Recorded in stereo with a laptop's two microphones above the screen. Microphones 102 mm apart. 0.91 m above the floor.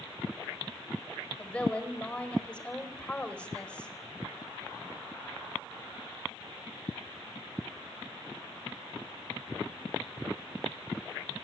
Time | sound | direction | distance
1.4 | a woman speaking | 10° left (ahead or behind) | 4.5 m